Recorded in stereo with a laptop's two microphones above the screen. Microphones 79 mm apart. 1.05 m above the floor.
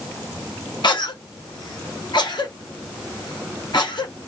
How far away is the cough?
About 1.2 m.